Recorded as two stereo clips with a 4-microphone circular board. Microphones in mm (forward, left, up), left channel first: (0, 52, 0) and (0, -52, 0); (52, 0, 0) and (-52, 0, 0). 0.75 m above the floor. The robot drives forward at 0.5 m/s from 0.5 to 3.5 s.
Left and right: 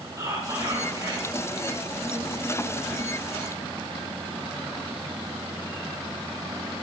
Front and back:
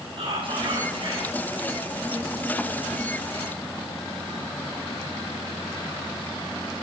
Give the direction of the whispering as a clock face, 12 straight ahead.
5 o'clock.